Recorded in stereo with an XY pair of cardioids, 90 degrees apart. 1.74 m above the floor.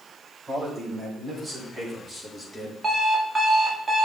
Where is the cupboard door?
I don't hear a cupboard door.